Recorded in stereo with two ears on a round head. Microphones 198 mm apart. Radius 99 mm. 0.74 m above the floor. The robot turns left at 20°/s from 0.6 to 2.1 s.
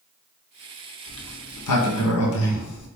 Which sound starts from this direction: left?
A sliding door, at 1.1 s.